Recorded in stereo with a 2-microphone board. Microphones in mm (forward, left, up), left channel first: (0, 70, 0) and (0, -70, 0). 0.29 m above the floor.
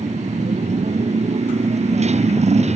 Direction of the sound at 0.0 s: 55° right (ahead or behind).